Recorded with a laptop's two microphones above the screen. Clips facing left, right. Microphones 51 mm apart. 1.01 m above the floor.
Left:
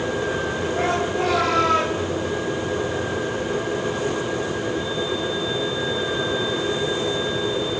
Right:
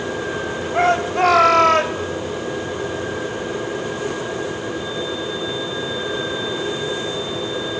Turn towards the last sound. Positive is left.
turn(degrees=-75)  # may be behind; listen again after turning